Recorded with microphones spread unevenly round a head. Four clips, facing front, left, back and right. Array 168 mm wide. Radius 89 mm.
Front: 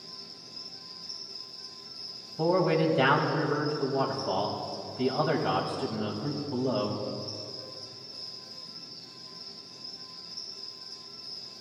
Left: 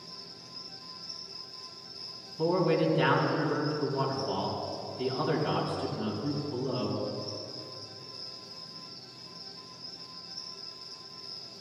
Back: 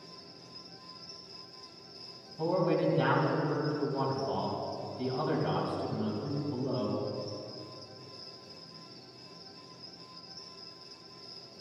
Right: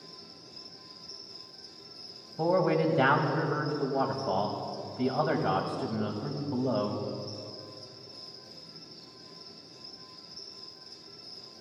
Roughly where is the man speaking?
Ahead right.